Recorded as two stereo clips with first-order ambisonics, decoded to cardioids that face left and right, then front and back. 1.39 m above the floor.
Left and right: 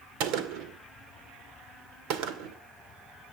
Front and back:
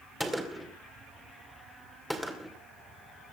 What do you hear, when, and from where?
0.2 s a gunshot: 90° right, 2 m